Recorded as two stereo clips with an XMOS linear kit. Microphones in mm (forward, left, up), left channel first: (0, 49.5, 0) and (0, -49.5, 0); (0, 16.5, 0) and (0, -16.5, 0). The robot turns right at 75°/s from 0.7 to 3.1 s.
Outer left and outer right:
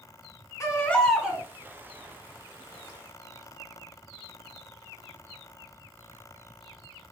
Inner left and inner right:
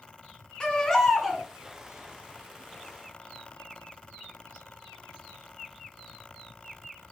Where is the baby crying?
145° left, 2.5 m; by 1.4 s 155° right, 2.5 m.